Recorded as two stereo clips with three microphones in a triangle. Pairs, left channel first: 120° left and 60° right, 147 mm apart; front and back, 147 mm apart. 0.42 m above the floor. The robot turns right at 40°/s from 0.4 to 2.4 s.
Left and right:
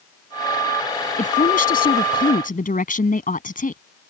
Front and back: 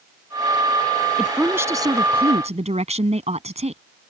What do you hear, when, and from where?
1.2 s a woman speaking: 90° left; by 3.8 s 140° left